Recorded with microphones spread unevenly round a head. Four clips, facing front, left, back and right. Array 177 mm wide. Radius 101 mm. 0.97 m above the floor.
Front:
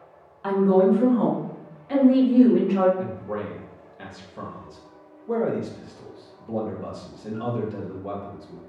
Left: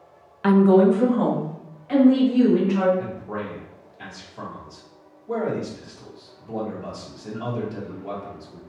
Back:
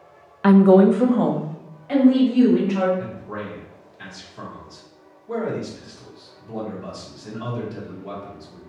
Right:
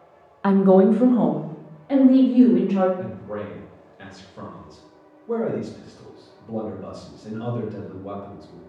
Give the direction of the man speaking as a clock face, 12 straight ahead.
12 o'clock.